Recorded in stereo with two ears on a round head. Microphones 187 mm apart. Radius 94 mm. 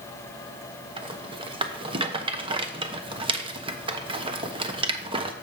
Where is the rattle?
25° right (ahead or behind), 0.9 m.